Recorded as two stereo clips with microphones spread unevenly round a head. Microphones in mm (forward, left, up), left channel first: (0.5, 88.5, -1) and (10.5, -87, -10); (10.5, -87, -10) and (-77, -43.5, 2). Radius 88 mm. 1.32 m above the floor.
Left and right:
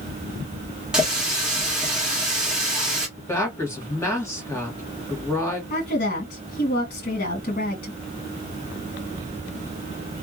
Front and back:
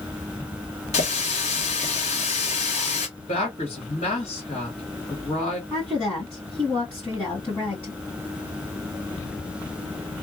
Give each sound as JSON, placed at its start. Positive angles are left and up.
{"t": 0.9, "sound": "a running tap", "azimuth_deg": 0, "distance_m": 1.5}
{"t": 3.2, "sound": "a woman speaking", "azimuth_deg": 20, "distance_m": 1.7}
{"t": 5.7, "sound": "a woman speaking", "azimuth_deg": 45, "distance_m": 1.9}